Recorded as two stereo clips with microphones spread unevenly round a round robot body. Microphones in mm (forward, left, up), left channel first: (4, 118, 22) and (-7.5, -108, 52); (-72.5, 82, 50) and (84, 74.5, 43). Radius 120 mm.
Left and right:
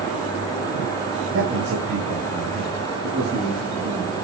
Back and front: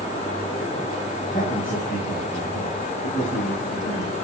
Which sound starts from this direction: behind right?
A man speaking, at 1.3 s.